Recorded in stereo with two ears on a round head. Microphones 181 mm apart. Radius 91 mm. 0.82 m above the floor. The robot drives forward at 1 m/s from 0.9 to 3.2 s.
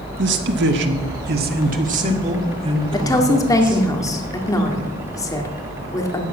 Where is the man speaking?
60° right (ahead or behind), 1.4 m; by 3.8 s 25° right (ahead or behind), 3 m.